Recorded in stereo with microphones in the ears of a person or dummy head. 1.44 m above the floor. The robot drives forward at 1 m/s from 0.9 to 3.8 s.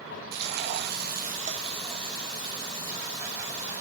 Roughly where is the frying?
Right.